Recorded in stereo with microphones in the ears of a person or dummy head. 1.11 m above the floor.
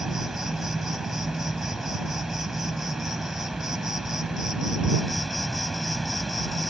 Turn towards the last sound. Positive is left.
turn(degrees=-5)  # may be behind; listen again after turning